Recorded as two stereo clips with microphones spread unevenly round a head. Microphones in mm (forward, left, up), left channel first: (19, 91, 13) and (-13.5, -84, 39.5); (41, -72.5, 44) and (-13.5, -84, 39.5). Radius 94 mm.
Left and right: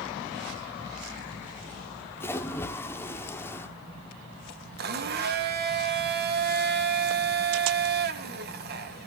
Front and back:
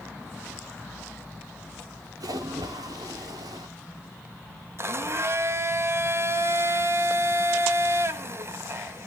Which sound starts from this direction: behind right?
A blender, at 4.8 s.